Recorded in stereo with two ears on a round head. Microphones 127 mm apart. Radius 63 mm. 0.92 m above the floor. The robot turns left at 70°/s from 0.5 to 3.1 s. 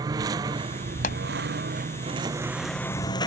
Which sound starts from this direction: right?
A lawn mower, at 0.0 s.